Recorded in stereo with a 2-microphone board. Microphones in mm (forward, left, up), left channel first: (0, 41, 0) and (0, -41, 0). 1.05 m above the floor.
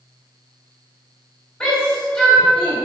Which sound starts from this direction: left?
A shout, at 1.6 s.